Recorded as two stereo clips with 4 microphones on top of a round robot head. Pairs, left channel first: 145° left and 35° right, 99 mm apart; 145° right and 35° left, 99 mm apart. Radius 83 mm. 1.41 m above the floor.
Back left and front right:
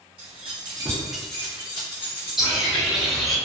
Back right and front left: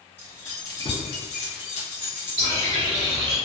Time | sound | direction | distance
0.2 | keys jangling | 70° right | 0.8 m
2.4 | a bird | 50° left | 0.9 m